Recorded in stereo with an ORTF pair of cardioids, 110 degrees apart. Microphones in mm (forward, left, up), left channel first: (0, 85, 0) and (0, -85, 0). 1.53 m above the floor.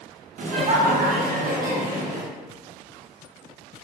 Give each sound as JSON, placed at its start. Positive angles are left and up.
{"t": 0.4, "sound": "laughter", "azimuth_deg": -50, "distance_m": 1.1}